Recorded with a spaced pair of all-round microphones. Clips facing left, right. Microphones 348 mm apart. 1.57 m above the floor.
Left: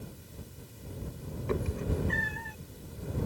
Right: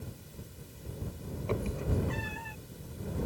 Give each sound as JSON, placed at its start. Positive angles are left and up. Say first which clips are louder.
{"t": 1.5, "sound": "a cat meowing", "louder": "left 1 dB", "side_deg": 25}